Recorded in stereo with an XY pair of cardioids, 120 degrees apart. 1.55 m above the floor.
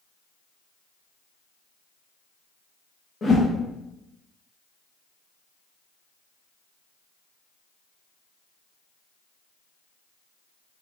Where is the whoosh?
35° left, 1.1 m.